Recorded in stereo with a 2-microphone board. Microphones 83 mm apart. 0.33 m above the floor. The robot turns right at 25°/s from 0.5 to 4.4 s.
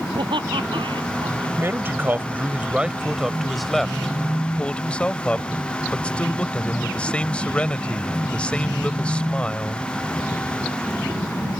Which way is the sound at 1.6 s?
50° right.